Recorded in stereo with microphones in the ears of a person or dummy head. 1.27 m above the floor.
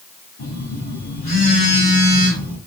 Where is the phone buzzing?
40° left (ahead or behind), 1.7 m.